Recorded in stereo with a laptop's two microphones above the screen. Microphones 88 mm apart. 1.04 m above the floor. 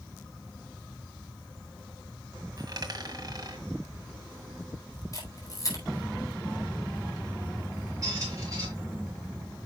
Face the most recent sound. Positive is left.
turn(degrees=-40)  # may be behind; listen again after turning